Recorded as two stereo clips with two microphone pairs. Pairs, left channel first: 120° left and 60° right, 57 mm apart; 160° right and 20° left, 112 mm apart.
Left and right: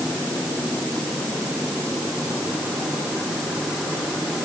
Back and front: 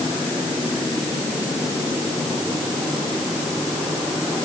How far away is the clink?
No clink in this recording.